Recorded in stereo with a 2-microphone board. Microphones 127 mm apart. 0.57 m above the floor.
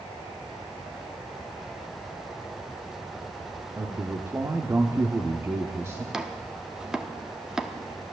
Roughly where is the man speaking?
Right.